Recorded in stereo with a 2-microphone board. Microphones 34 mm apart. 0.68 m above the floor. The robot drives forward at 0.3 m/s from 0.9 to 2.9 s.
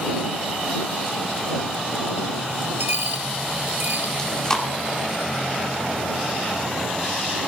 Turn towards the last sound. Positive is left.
turn(degrees=20)  # may be behind; listen again after turning